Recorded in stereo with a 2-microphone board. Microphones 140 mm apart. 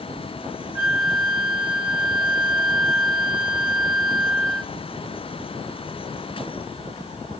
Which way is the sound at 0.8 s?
20° right (ahead or behind).